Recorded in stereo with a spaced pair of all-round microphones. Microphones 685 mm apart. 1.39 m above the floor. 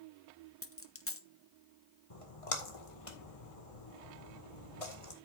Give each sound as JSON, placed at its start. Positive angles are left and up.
{"t": 0.6, "sound": "a dropped coin", "side_deg": 20, "distance_m": 0.8}
{"t": 2.1, "sound": "a splash", "side_deg": 50, "distance_m": 1.9}